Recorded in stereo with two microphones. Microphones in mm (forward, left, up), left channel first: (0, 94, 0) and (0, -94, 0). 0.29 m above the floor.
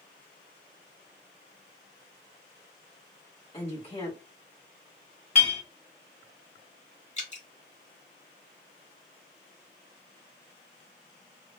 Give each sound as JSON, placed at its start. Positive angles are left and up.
{"t": 3.5, "sound": "a woman speaking", "side_deg": 35, "distance_m": 1.5}
{"t": 5.3, "sound": "a clink", "side_deg": 40, "distance_m": 1.5}
{"t": 7.2, "sound": "dripping", "side_deg": 35, "distance_m": 1.1}